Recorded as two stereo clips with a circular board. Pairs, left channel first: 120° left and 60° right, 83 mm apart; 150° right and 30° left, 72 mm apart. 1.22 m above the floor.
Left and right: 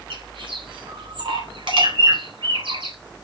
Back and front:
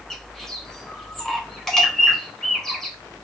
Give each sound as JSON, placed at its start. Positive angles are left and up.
{"t": 0.1, "sound": "a bird", "azimuth_deg": -65, "distance_m": 4.0}